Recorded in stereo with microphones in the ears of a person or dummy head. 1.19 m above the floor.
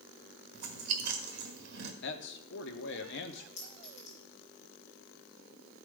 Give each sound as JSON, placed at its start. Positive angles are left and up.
{"t": 0.5, "sound": "chewing", "side_deg": -65, "distance_m": 1.4}
{"t": 2.0, "sound": "a man speaking", "side_deg": 60, "distance_m": 1.2}
{"t": 3.6, "sound": "a clink", "side_deg": 30, "distance_m": 2.0}